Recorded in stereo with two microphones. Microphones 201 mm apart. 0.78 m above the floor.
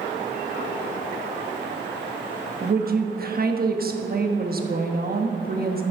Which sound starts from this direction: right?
A woman speaking, at 2.6 s.